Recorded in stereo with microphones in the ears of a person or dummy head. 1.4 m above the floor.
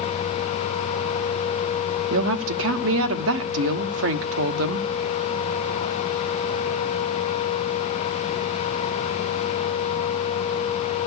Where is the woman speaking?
75° right (ahead or behind), 1.0 m.